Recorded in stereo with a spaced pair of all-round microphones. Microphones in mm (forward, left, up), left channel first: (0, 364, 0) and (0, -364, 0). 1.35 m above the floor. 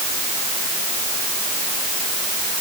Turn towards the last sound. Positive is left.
No sound to turn to.